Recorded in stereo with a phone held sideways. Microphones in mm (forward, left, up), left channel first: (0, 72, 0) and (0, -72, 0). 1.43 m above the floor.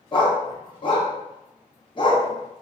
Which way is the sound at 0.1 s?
35° left (ahead or behind).